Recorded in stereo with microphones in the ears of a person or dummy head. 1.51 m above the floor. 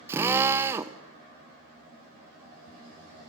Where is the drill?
10° right (ahead or behind), 0.9 m.